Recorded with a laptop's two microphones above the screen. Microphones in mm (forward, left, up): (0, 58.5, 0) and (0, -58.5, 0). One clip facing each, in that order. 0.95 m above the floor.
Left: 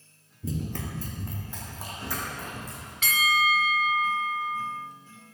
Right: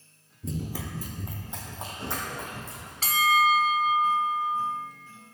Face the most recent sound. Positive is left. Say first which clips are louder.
# right 4 dB
turn(degrees=-35)  # may be behind; listen again after turning